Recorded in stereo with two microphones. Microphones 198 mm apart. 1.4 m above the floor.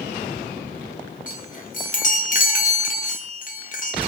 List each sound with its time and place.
1.3 s a chime: 45° left (ahead or behind), 0.5 m